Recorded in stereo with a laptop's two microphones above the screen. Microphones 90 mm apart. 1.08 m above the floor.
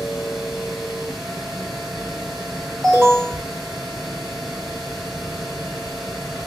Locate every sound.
0.0 s a machine running: 5° right (ahead or behind), 1.9 m
2.8 s an alarm: 5° left (ahead or behind), 2.5 m